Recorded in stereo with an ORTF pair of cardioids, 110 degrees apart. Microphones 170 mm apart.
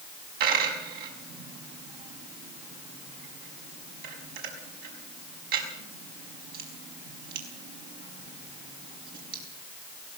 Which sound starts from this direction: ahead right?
A dropped coin, at 0.4 s.